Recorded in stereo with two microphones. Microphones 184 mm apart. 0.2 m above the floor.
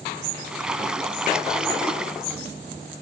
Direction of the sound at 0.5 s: 5° right (ahead or behind).